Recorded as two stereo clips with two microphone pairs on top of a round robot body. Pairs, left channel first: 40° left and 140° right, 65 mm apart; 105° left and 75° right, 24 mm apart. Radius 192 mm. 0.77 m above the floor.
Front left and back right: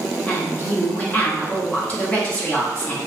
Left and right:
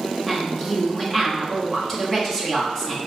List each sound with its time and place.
0.3 s a woman speaking: 50° left, 1.1 m